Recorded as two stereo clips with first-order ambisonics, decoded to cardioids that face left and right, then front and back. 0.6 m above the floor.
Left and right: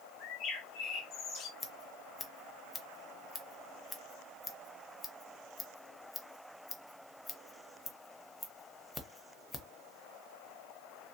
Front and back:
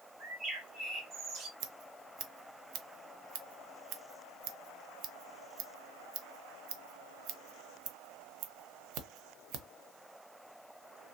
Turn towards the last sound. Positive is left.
turn(degrees=165)